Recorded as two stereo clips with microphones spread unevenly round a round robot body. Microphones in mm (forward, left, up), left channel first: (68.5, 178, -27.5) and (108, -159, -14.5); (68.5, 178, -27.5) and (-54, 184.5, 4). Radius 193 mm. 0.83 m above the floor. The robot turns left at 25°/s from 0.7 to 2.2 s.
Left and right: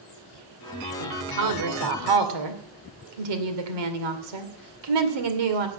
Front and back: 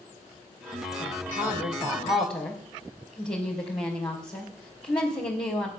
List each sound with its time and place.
1.0 s a woman speaking: 45° right, 2.5 m; by 5.7 s 75° right, 2.5 m